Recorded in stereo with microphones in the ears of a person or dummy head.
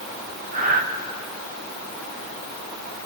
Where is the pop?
I don't hear a pop.